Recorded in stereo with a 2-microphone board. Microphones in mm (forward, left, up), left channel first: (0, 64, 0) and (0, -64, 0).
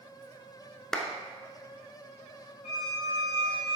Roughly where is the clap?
Centre.